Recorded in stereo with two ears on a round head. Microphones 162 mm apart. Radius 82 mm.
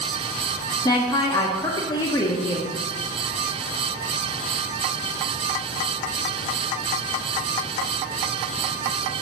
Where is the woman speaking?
20° left (ahead or behind), 0.8 m.